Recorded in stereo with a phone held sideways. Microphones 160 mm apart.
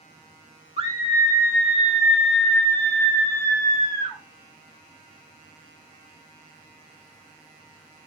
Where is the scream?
40° right (ahead or behind), 1.8 m; by 4.2 s 25° left (ahead or behind), 4.5 m.